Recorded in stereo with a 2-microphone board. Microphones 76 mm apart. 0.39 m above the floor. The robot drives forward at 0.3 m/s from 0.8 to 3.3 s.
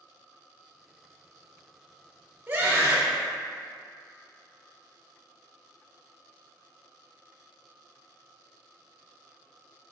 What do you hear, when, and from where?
2.5 s a scream: 20° right (ahead or behind), 0.8 m